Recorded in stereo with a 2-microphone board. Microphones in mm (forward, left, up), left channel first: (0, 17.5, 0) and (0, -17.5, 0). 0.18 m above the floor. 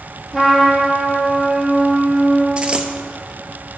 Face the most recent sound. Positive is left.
turn(degrees=-35)  # may be behind; listen again after turning